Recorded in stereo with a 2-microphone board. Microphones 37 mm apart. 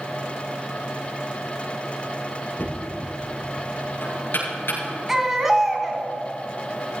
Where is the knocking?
80° left, 5.5 m.